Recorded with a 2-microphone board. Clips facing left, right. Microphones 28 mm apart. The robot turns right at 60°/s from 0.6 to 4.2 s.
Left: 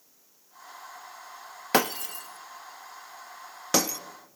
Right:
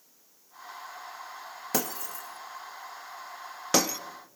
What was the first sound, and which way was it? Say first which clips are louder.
Breaking glass: left 8 dB; 50° left (ahead or behind).